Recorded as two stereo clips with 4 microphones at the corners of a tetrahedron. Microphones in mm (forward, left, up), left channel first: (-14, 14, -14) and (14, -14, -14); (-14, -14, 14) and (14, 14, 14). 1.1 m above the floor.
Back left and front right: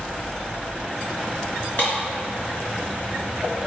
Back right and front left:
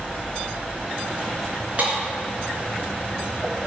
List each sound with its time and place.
1.8 s breaking glass: 100° left, 3.5 m